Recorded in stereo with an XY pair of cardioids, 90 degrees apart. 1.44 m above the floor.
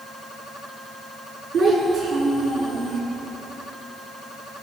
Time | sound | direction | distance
1.5 | a child speaking | 60° right | 9 m